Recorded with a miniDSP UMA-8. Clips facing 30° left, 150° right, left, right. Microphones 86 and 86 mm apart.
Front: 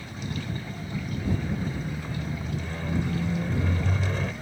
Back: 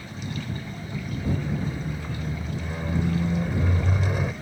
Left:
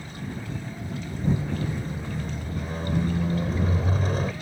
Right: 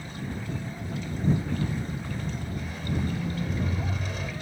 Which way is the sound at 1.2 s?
135° left.